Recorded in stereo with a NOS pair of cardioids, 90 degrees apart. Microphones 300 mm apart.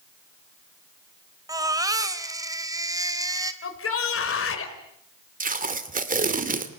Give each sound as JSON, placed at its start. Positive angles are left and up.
{"t": 1.5, "sound": "a baby crying", "azimuth_deg": -10, "distance_m": 2.5}
{"t": 3.6, "sound": "a shout", "azimuth_deg": 45, "distance_m": 4.5}
{"t": 5.4, "sound": "tape being pulled", "azimuth_deg": -25, "distance_m": 2.5}